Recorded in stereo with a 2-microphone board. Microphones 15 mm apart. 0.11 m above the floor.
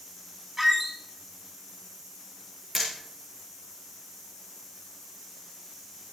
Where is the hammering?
10° right (ahead or behind), 5.5 m.